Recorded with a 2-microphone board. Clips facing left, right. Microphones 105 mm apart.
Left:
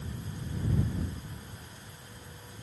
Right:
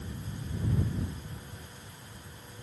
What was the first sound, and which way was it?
Only background noise.